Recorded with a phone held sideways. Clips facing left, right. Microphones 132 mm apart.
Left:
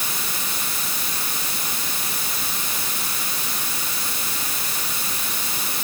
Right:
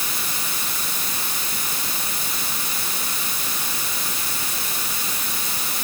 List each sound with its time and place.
Only background noise.